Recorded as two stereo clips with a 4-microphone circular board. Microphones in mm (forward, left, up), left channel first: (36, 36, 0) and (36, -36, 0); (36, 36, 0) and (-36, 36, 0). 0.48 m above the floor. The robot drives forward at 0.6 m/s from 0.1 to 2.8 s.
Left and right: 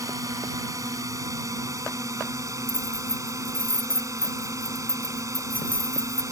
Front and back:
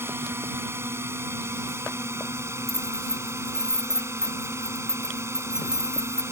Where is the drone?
125° right; by 6.3 s 130° right.